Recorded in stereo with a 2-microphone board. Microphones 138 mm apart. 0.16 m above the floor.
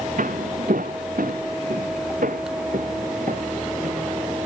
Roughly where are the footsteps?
Right.